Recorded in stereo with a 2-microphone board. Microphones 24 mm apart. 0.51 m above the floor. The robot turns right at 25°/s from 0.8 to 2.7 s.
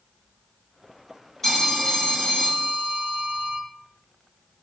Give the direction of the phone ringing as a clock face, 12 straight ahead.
11 o'clock.